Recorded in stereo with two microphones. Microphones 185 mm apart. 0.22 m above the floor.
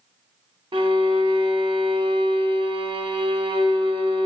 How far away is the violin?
About 0.7 m.